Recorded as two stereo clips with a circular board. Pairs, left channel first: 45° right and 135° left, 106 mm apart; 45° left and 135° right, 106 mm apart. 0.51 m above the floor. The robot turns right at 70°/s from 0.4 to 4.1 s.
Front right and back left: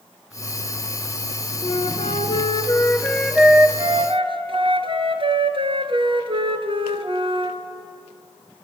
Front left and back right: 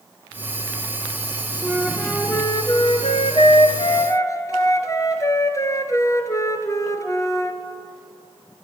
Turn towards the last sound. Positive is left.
turn(degrees=105)